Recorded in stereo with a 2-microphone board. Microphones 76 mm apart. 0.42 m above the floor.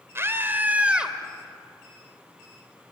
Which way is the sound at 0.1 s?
35° right (ahead or behind).